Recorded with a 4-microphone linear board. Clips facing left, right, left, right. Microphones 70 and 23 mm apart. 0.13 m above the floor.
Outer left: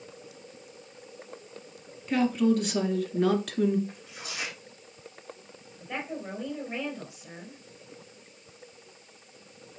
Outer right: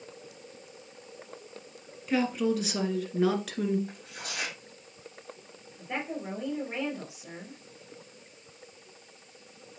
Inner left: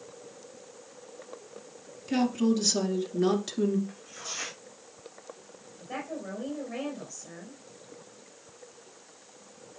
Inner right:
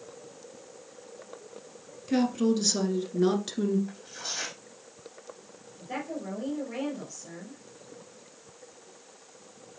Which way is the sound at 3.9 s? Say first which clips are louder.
Outer right 1 dB, inner right 3 dB; 55° right (ahead or behind).